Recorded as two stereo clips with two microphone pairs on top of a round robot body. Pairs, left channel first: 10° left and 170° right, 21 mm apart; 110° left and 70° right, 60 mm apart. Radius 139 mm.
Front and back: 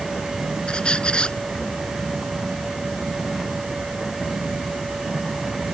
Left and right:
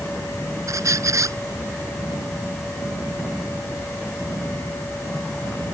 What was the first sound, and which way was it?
A squeak, 40° right.